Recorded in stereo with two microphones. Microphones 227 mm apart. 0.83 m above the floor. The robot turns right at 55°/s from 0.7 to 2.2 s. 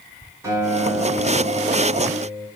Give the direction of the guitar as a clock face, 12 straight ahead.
6 o'clock.